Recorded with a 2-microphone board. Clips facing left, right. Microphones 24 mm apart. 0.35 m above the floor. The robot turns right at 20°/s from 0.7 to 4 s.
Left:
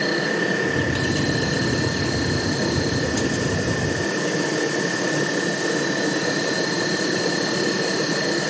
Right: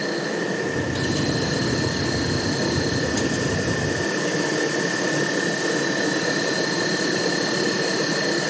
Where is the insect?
130° left, 4 m; by 8.5 s 160° right, 4 m.